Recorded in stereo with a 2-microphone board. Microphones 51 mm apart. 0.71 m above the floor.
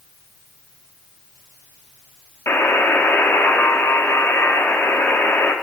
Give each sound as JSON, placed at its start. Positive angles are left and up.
{"t": 2.5, "sound": "a buzzer", "side_deg": 50, "distance_m": 1.3}